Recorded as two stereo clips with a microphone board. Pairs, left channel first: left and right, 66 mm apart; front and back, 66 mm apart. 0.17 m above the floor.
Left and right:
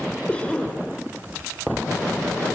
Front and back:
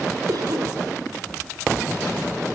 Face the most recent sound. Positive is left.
turn(degrees=165)